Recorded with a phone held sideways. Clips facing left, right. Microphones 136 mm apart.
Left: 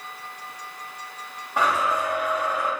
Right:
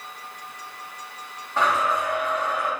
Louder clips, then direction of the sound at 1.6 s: Even; 15° left (ahead or behind).